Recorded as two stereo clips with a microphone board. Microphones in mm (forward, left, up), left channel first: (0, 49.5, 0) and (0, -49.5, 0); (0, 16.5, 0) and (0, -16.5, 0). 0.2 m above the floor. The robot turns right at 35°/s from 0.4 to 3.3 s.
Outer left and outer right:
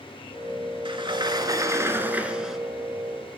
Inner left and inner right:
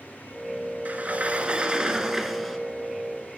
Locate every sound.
0.8 s a sliding door: 65° right, 0.8 m; by 2.6 s straight ahead, 0.8 m